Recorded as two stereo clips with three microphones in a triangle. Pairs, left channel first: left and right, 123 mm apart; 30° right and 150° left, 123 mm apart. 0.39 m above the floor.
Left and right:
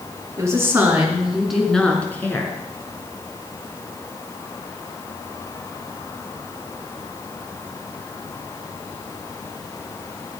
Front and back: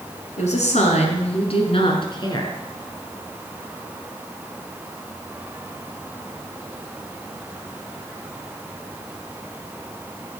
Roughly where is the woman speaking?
Ahead right.